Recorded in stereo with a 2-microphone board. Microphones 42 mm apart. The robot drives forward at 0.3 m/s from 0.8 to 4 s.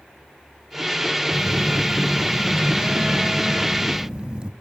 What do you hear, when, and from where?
1.3 s a phone buzzing: 40° right (ahead or behind), 0.9 m; by 4.5 s 25° right (ahead or behind), 1.4 m